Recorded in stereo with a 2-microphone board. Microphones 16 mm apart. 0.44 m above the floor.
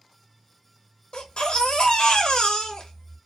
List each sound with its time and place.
1.1 s a baby crying: 70° left (ahead or behind), 0.8 m